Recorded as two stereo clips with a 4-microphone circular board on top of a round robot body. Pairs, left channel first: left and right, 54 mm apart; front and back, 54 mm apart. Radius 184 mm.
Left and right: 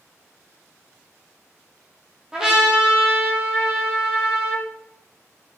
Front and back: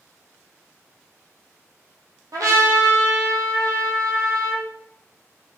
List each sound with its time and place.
2.3 s a trumpet: 170° right, 4 m